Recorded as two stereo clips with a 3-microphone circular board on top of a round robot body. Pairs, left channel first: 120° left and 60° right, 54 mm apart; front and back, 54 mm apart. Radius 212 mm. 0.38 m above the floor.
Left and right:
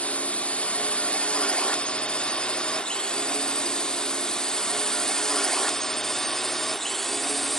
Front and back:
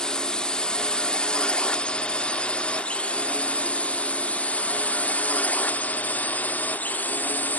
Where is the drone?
70° left; by 7.6 s 35° left.